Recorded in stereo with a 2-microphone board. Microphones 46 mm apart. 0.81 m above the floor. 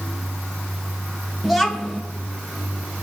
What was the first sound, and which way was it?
A child speaking, centre (ahead or behind).